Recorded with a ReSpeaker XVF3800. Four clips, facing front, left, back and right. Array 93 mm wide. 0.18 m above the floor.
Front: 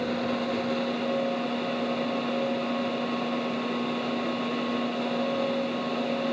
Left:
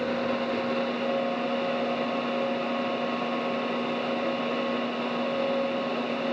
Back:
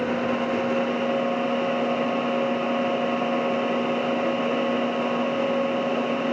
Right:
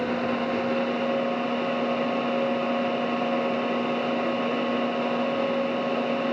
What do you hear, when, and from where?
Only background noise.